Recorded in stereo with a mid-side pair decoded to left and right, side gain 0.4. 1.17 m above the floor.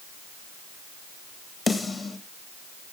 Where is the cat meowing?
No cat meowing in this recording.